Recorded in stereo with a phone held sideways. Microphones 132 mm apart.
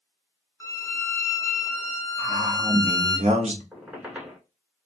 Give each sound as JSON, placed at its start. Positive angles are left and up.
{"t": 0.6, "sound": "a violin", "side_deg": 20, "distance_m": 0.5}
{"t": 2.2, "sound": "a man speaking", "side_deg": -55, "distance_m": 0.8}
{"t": 3.7, "sound": "a squeak", "side_deg": -10, "distance_m": 0.9}